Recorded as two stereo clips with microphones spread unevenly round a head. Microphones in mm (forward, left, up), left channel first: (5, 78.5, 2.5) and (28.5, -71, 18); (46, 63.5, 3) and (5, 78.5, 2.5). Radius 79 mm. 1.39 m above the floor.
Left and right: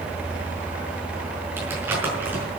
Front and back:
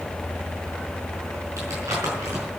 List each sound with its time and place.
1.6 s crumpling: 160° right, 5 m